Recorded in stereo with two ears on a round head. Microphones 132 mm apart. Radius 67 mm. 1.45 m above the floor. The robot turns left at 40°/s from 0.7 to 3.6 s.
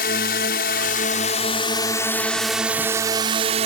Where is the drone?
70° left; by 3.7 s 45° right.